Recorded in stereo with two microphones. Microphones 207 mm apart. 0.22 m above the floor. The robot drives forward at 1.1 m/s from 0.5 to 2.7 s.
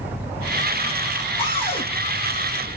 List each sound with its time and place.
1.4 s a cupboard door: 25° left (ahead or behind), 4.5 m; by 1.9 s 30° left (ahead or behind), 4 m